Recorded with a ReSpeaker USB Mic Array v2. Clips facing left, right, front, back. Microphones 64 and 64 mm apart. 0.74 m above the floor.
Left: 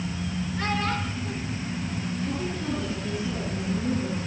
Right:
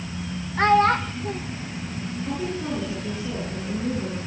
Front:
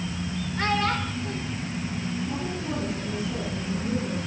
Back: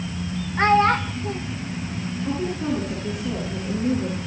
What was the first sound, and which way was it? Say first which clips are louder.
A child speaking: right 12 dB, back 9 dB; 125° right.